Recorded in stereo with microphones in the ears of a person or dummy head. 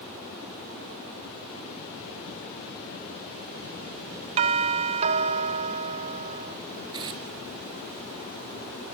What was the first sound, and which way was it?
A doorbell, 25° right (ahead or behind).